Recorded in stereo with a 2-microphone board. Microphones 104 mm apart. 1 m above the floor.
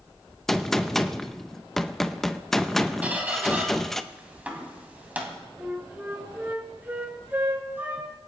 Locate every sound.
0.5 s a gunshot: 5° left (ahead or behind), 0.6 m
3.0 s a squeak: 15° right (ahead or behind), 2.5 m
5.6 s a flute: 20° right (ahead or behind), 2 m